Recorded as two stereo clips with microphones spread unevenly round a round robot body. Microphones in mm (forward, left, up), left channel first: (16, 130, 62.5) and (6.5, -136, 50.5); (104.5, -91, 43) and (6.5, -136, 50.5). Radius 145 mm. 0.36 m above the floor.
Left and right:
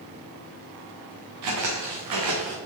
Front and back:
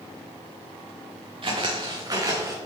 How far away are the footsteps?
About 2.5 m.